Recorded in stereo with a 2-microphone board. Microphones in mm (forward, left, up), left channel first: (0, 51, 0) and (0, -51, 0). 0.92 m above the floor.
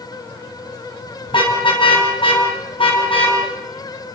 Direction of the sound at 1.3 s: 55° left (ahead or behind).